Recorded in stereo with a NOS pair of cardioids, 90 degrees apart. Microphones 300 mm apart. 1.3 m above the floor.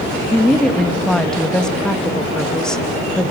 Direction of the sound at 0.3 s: Straight ahead.